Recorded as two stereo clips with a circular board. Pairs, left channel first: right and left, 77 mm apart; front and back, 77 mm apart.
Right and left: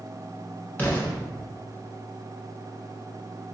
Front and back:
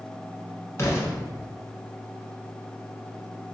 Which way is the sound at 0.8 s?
30° right.